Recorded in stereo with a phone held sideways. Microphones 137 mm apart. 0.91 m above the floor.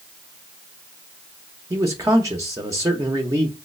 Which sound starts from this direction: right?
A man speaking, at 1.7 s.